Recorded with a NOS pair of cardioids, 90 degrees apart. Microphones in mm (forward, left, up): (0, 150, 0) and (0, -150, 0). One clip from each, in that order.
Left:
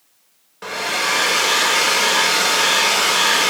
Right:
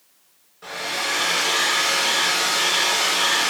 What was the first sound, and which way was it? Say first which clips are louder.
A hair dryer: left 5 dB; 65° left.